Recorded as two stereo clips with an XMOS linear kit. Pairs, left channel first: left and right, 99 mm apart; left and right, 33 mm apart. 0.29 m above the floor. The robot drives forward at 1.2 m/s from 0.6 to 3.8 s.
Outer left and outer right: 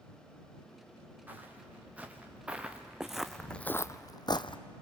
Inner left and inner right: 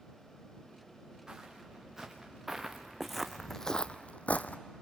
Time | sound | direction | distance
1.3 | footsteps | 15° right (ahead or behind) | 4 m